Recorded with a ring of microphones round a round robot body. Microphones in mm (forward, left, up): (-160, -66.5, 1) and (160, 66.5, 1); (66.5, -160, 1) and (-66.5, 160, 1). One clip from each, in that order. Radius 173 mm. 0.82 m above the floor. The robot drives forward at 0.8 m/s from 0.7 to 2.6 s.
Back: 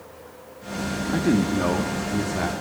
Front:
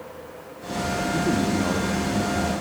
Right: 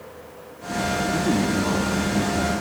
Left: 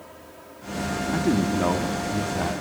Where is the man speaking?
170° right, 1.7 m; by 2.5 s 175° right, 2.5 m.